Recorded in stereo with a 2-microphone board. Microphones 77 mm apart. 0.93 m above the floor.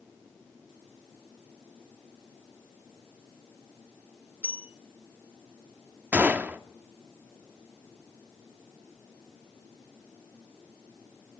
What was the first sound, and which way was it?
A bell, 25° right (ahead or behind).